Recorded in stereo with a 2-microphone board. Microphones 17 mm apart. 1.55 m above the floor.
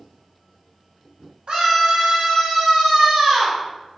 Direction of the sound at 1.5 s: 65° right (ahead or behind).